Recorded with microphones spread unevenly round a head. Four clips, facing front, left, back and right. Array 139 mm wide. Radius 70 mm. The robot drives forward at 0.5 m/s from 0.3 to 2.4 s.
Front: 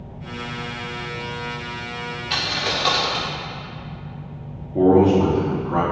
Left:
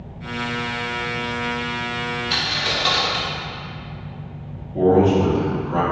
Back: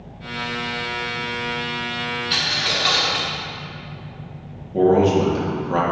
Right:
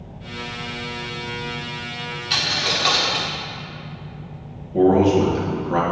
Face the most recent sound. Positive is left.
turn(degrees=-135)